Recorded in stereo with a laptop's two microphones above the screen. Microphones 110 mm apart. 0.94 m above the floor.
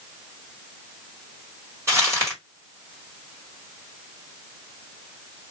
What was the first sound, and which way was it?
Crumpling, 25° right (ahead or behind).